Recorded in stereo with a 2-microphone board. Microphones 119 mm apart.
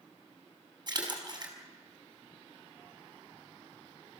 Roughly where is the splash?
Right.